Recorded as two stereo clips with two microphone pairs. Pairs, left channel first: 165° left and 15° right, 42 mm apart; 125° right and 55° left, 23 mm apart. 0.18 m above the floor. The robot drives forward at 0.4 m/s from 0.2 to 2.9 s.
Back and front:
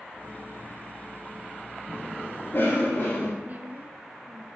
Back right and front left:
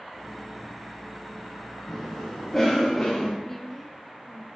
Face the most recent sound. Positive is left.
turn(degrees=-55)